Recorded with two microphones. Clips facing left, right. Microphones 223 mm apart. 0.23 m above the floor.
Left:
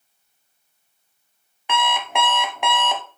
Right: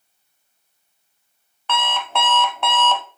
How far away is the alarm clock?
About 0.7 m.